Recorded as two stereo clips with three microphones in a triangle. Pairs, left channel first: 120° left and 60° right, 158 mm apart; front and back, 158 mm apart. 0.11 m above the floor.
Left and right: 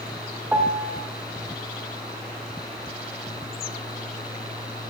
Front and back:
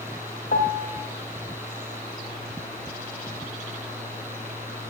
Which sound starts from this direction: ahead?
A piano, at 0.5 s.